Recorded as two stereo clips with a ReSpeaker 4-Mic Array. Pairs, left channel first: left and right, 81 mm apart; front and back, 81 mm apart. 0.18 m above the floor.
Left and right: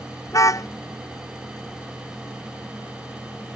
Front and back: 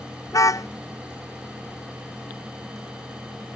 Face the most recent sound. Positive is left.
turn(degrees=45)